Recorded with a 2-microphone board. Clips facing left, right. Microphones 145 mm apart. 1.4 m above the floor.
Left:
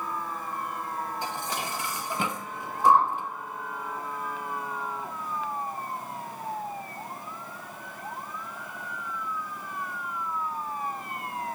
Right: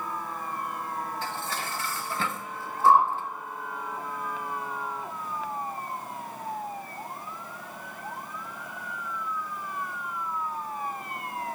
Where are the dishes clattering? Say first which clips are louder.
Left 1 dB; 15° left (ahead or behind), 1.2 m.